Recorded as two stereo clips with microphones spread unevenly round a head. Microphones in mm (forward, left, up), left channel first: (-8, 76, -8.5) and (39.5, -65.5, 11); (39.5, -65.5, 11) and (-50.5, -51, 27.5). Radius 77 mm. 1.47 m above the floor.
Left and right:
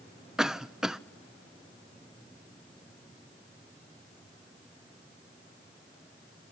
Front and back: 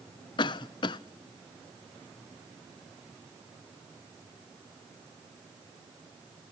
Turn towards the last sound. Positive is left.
turn(degrees=20)